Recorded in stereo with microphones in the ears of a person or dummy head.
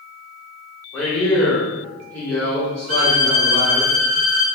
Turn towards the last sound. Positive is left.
turn(degrees=-50)  # may be behind; listen again after turning